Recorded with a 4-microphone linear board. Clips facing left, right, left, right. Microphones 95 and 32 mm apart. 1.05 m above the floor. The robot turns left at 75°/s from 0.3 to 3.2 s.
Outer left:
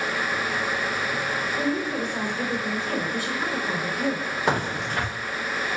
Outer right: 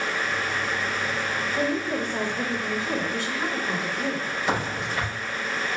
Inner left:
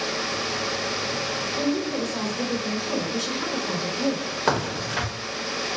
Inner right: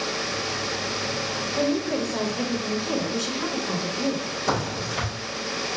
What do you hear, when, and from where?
1.6 s a woman speaking: 65° right, 1.5 m; by 4.3 s 170° left, 1.5 m
4.5 s a crack: 70° left (ahead or behind), 2 m